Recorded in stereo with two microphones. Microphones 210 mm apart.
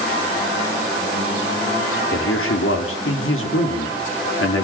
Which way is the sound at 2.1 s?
70° left (ahead or behind).